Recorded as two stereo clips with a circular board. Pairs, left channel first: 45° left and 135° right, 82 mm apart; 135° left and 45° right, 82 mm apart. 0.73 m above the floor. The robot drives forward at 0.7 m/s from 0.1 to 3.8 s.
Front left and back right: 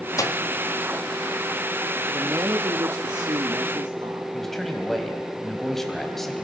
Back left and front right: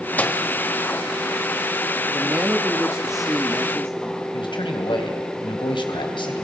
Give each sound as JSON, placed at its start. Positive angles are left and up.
{"t": 0.2, "sound": "a microwave", "azimuth_deg": 70, "distance_m": 1.1}
{"t": 2.1, "sound": "a man speaking", "azimuth_deg": -90, "distance_m": 1.2}
{"t": 4.3, "sound": "a man speaking", "azimuth_deg": 130, "distance_m": 3.5}